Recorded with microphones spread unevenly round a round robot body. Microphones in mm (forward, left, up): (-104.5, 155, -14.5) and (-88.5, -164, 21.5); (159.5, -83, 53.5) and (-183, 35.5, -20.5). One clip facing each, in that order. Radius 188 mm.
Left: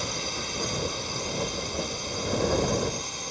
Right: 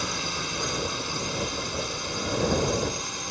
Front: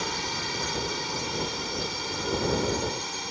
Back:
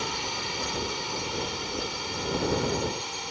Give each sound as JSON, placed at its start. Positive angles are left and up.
{"t": 0.0, "sound": "a drone", "azimuth_deg": -80}